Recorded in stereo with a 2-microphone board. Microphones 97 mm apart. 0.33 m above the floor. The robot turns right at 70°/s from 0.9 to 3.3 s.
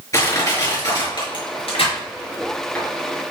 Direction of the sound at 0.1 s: 35° left (ahead or behind).